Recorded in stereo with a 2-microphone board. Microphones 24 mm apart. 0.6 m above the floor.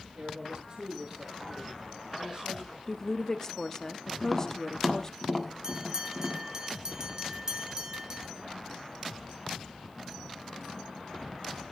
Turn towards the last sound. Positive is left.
turn(degrees=-30)  # may be behind; listen again after turning